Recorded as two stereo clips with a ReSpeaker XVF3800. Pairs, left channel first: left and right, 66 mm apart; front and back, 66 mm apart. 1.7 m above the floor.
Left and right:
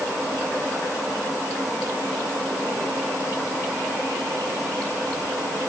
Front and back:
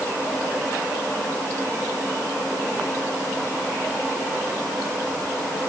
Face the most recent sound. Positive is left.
No sound to turn to.